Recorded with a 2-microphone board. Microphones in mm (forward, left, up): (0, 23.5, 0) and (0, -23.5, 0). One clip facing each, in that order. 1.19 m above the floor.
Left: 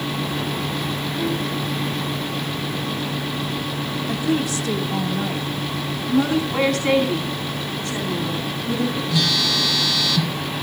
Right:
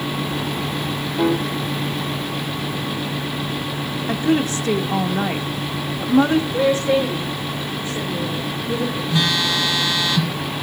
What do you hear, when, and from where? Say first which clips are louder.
1.2 s a piano: right 6 dB; 80° right, 1.9 m
4.1 s a woman speaking: right 4 dB; 40° right (ahead or behind), 1.9 m
6.5 s a woman speaking: right 1 dB; 90° left, 8.5 m
9.1 s a phone buzzing: right 4 dB; 30° right (ahead or behind), 2 m